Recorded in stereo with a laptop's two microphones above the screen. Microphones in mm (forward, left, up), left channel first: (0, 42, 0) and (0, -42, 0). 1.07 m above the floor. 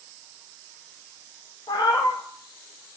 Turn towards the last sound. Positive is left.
turn(degrees=55)  # may be behind; listen again after turning